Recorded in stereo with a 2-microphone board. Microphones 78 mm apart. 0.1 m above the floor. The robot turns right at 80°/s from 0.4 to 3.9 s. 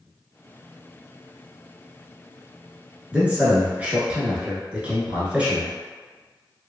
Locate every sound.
3.1 s a man speaking: 15° right (ahead or behind), 1.1 m; by 5.7 s 20° right (ahead or behind), 1.1 m